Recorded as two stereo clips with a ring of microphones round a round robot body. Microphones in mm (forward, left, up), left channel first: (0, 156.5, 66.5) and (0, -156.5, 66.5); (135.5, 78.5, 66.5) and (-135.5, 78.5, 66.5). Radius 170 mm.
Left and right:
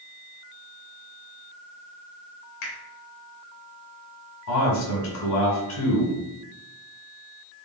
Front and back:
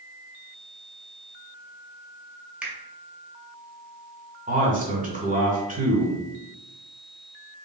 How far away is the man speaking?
About 1.8 m.